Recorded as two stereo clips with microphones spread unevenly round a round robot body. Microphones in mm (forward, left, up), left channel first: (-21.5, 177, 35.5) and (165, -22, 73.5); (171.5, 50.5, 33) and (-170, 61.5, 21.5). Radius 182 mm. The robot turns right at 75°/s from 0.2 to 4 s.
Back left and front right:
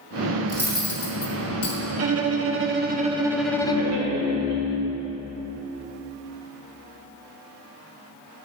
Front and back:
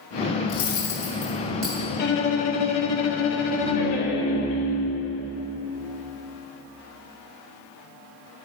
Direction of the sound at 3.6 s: 50° right.